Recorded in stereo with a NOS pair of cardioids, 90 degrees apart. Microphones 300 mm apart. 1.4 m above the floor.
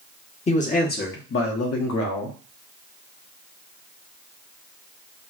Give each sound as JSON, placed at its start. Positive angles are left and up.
{"t": 0.5, "sound": "a man speaking", "azimuth_deg": 20, "distance_m": 1.3}